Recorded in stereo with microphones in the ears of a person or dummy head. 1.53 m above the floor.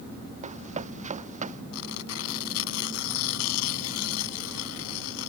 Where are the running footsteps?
30° right (ahead or behind); by 1.6 s 35° right (ahead or behind).